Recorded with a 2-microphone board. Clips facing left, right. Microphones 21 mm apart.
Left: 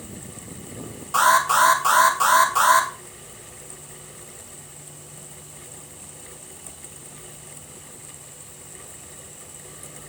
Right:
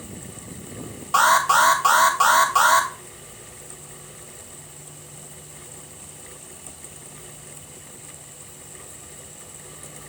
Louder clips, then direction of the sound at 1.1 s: Right 1 dB; 25° right (ahead or behind).